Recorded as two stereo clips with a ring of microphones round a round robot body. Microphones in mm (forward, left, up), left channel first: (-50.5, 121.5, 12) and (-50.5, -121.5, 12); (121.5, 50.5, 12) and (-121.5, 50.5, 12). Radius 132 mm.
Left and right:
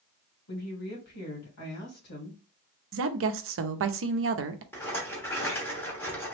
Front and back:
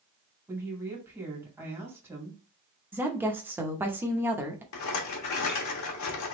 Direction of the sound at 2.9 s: 100° right.